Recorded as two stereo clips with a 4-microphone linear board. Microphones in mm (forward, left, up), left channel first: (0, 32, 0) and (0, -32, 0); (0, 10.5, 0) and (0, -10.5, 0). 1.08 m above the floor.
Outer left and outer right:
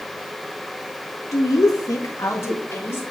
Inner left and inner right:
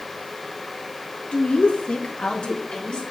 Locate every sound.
1.3 s a woman speaking: 55° left (ahead or behind), 0.7 m; by 3.0 s 40° left (ahead or behind), 2.5 m